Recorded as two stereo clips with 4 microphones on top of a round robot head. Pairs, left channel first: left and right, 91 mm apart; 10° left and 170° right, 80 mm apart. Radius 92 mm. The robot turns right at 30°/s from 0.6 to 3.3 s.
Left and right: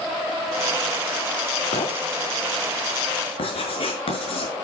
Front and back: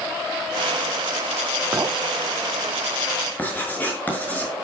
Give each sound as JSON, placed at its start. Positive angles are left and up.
{"t": 1.7, "sound": "a clink", "azimuth_deg": 125, "distance_m": 2.0}
{"t": 3.4, "sound": "writing", "azimuth_deg": 75, "distance_m": 6.5}